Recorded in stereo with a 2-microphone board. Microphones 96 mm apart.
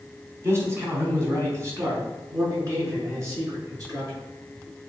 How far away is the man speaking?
About 3 m.